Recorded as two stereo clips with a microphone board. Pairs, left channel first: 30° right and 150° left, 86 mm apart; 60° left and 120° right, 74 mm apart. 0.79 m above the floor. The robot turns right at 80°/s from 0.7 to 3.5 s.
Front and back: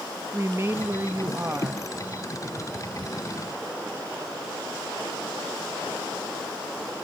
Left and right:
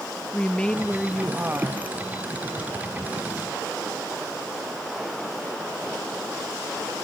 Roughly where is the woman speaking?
Behind left.